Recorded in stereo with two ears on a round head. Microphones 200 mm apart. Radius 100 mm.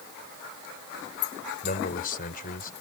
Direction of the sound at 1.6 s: 40° left (ahead or behind).